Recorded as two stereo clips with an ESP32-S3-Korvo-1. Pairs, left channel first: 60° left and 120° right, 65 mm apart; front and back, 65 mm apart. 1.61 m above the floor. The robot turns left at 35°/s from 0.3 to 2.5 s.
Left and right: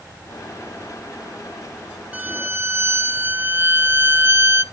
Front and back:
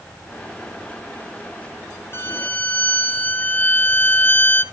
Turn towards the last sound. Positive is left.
turn(degrees=-70)